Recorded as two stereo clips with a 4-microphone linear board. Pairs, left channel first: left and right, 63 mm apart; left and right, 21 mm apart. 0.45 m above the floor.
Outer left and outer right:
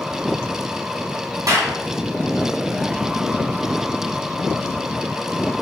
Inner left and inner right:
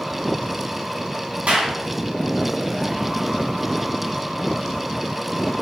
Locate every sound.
1.5 s a clap: 70° right (ahead or behind), 3.5 m